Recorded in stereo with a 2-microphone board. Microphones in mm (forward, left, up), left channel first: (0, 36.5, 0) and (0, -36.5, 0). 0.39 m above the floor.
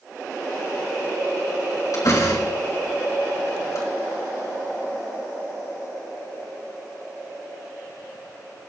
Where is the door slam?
55° left (ahead or behind), 3.5 m.